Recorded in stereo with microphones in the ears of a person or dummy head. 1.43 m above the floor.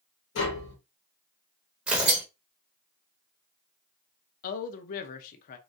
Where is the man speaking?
50° left (ahead or behind), 0.5 m.